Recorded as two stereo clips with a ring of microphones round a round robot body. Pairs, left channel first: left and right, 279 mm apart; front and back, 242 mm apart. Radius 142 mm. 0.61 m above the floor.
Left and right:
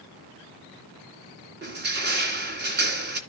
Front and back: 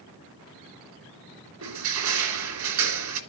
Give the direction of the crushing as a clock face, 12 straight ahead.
5 o'clock.